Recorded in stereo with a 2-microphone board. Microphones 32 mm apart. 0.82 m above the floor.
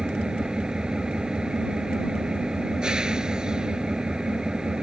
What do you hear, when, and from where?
0.0 s an engine running: 20° right (ahead or behind)